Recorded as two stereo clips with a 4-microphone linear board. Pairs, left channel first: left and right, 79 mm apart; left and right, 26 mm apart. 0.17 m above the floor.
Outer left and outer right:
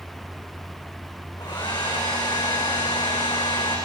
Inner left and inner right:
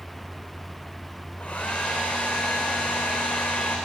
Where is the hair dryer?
65° left (ahead or behind), 7 m.